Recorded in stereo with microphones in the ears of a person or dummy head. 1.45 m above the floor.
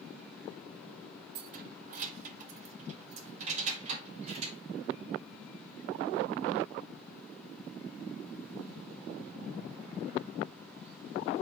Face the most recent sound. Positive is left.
turn(degrees=-35)  # may be behind; listen again after turning